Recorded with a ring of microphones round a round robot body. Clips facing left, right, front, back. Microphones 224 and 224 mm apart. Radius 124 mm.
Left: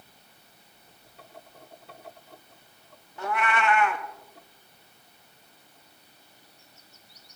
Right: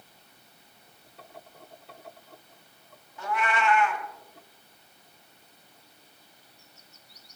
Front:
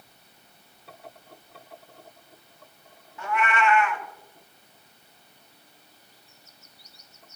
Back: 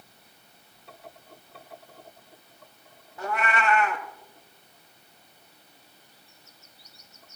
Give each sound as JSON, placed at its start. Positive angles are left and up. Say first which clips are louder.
{"t": 3.2, "sound": "a cat meowing", "louder": "left 1 dB, front 2 dB", "azimuth_deg": 125, "distance_m": 0.9}